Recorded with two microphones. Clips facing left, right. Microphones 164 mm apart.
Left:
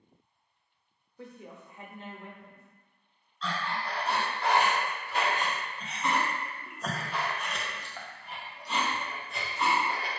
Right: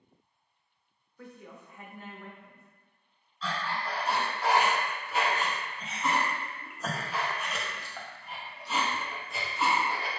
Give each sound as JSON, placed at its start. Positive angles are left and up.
{"t": 1.2, "sound": "a woman speaking", "side_deg": 20, "distance_m": 0.7}
{"t": 3.4, "sound": "breathing", "side_deg": -5, "distance_m": 0.6}